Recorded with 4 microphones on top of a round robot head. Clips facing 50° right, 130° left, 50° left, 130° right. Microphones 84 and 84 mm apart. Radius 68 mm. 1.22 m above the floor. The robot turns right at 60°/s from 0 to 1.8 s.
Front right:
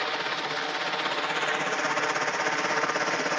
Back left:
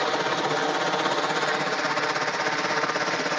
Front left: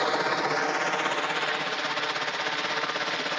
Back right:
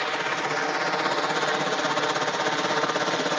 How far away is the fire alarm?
I don't hear a fire alarm.